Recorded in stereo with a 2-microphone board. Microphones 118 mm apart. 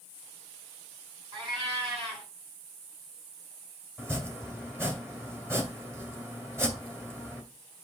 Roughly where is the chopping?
Right.